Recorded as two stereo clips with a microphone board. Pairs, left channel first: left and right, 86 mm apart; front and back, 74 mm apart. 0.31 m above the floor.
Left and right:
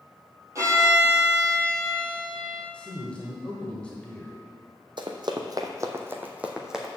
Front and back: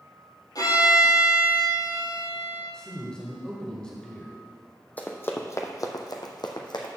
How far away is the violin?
About 3.5 m.